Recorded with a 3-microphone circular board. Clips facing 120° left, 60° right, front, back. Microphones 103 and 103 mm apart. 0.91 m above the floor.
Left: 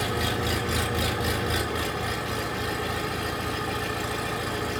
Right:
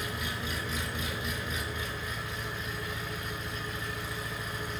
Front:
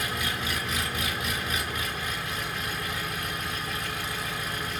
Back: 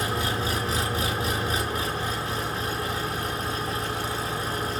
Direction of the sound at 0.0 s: 125° left.